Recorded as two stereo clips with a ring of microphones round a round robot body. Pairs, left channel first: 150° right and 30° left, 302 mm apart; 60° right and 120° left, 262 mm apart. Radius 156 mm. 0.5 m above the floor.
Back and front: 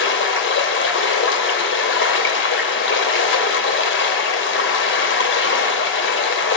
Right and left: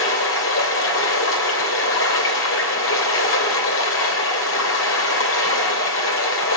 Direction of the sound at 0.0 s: 100° right.